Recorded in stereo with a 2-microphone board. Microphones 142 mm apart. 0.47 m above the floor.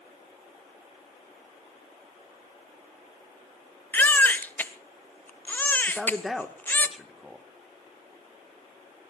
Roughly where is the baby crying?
Centre.